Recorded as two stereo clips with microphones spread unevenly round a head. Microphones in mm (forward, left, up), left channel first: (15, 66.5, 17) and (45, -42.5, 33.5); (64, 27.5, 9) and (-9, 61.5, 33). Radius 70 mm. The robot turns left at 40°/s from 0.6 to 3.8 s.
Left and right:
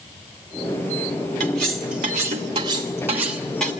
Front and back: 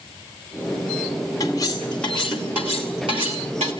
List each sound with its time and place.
1.4 s cutlery clinking: 80° right, 2.5 m; by 3.7 s 175° right, 2.5 m